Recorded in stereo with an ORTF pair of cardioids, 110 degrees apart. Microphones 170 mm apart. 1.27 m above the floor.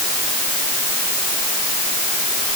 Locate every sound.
Only background noise.